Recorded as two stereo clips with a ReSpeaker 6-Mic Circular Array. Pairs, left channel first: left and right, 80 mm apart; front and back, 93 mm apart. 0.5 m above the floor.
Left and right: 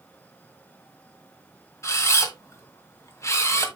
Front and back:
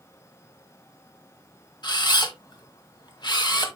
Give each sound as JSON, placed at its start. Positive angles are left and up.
{"t": 1.8, "sound": "a camera shutter", "azimuth_deg": 35, "distance_m": 1.7}